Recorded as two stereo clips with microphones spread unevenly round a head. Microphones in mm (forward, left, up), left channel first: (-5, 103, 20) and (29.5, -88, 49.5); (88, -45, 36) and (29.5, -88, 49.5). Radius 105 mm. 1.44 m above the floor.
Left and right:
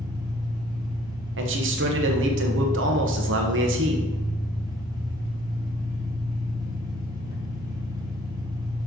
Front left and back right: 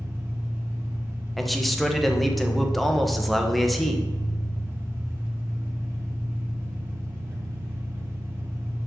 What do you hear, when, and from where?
0.0 s an engine running: 135° right, 1.1 m
1.4 s a man speaking: 55° right, 1.1 m